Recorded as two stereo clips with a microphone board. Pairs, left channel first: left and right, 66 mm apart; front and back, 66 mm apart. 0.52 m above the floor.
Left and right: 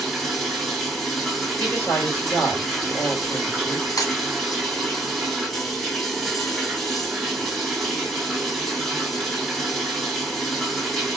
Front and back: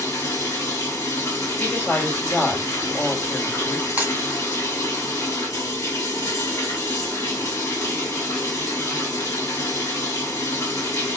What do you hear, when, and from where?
0.0 s running water: straight ahead, 1.4 m
1.6 s a woman speaking: 60° left, 1.9 m
4.0 s breaking glass: 110° left, 1.9 m